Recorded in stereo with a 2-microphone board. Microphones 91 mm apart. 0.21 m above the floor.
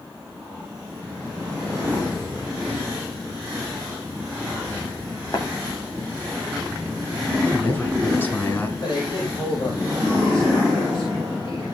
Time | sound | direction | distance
5.3 | tapping | 50° left (ahead or behind) | 2.5 m
7.4 | a man speaking | 25° left (ahead or behind) | 3 m
8.8 | a man speaking | 55° left (ahead or behind) | 7.5 m